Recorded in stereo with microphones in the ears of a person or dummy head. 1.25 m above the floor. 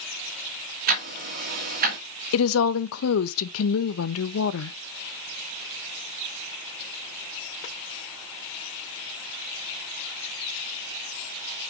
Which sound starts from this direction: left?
A woman speaking, at 2.3 s.